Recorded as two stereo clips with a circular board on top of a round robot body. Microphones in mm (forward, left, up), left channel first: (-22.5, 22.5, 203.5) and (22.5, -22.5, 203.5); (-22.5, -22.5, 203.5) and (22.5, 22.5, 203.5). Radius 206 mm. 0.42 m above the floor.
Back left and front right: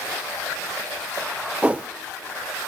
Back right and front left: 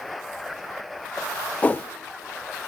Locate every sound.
1.6 s a whoosh: 95° right, 0.6 m